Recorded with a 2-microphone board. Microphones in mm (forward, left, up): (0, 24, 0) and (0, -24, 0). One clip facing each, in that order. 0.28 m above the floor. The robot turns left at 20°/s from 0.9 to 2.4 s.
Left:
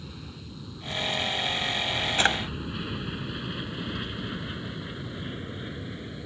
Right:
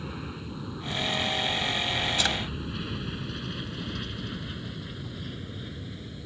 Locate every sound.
0.0 s an aircraft: 35° right (ahead or behind); by 6.3 s 30° left (ahead or behind)
2.2 s a drawer: 35° left (ahead or behind)